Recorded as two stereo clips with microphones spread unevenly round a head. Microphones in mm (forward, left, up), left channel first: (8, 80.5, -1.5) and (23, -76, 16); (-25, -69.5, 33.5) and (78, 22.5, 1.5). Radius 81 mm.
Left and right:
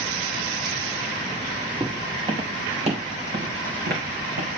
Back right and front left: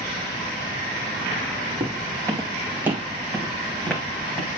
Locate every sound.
1.8 s footsteps: 20° right, 3 m; by 4.5 s 70° right, 3.5 m